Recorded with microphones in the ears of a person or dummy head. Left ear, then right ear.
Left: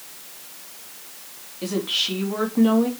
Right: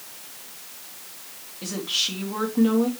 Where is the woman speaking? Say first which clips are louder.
Left 2 dB; 15° left (ahead or behind), 3 m.